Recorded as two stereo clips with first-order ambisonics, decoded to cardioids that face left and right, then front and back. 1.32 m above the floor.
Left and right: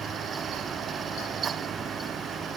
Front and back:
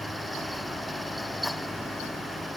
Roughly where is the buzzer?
No buzzer in this recording.